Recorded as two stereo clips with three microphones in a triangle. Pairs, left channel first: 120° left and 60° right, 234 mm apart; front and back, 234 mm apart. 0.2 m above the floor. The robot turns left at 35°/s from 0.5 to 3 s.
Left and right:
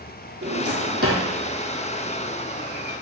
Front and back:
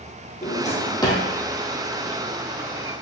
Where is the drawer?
55° right, 2.5 m; by 1.2 s 80° right, 2.5 m.